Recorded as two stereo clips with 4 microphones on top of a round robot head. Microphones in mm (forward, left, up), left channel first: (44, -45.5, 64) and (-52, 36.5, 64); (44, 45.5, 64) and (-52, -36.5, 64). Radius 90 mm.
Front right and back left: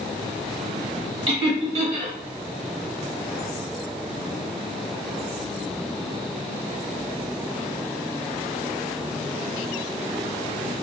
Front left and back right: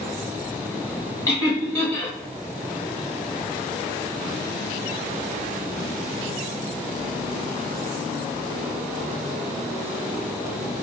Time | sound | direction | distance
1.3 | laughter | 100° left | 1.7 m